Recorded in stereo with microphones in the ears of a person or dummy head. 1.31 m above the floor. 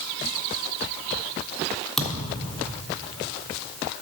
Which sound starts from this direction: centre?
A thud, at 2.0 s.